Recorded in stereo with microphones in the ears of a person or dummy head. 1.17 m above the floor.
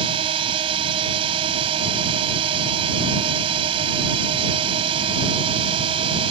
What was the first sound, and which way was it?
A drone, 30° right (ahead or behind).